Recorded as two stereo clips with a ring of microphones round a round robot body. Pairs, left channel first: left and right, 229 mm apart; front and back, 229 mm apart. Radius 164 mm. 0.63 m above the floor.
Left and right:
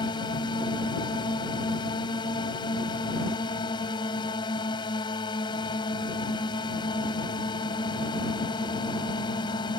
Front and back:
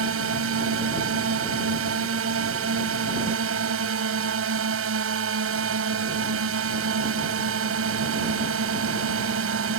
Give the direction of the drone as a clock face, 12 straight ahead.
6 o'clock.